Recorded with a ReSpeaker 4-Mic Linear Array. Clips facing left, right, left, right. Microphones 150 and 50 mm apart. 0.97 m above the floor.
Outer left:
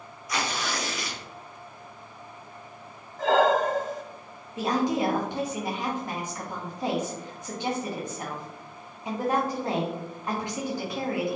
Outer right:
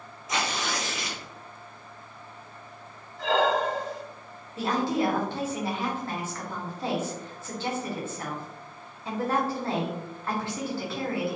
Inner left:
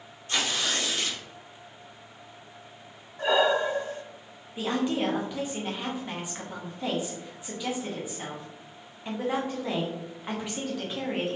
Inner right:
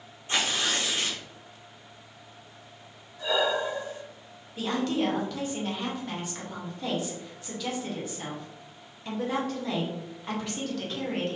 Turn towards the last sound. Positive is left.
turn(degrees=15)  # may be behind; listen again after turning